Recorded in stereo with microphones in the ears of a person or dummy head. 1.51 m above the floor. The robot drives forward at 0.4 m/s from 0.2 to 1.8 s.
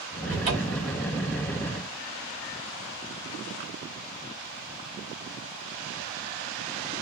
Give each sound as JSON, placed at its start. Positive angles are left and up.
{"t": 0.3, "sound": "a cupboard door", "side_deg": -35, "distance_m": 2.0}